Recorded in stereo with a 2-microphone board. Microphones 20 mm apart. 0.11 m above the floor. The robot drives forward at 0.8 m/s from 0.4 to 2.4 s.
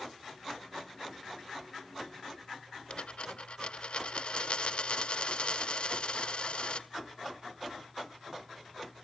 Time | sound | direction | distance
2.9 | a dropped coin | 65° left (ahead or behind) | 1.3 m